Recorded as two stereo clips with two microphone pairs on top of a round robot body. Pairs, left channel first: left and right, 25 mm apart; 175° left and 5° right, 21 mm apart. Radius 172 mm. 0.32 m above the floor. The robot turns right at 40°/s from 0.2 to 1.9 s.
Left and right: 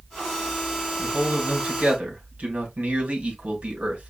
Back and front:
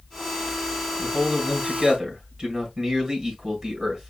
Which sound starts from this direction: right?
A man speaking, at 1.0 s.